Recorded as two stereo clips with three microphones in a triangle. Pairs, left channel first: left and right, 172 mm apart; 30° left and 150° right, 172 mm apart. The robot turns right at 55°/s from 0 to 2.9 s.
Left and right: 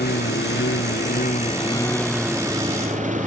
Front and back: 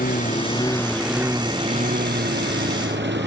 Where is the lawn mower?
65° left; by 3.3 s 135° right.